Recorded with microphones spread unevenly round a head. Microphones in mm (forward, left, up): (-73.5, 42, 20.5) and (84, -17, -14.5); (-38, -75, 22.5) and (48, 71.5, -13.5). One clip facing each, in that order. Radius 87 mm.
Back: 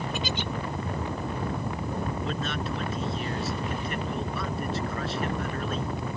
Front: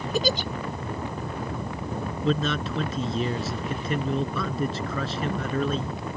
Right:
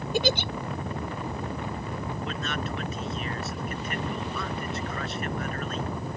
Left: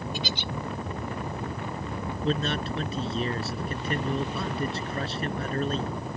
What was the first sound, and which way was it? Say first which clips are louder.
A giggle: front 6 dB, right 8 dB; 80° right.